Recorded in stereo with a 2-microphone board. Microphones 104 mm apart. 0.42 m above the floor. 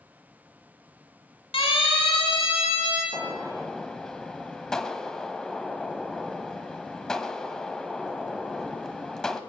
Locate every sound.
1.5 s a siren: 70° left (ahead or behind), 4.5 m; by 3.0 s 75° left (ahead or behind), 5.5 m
3.1 s a gunshot: 5° left (ahead or behind), 0.7 m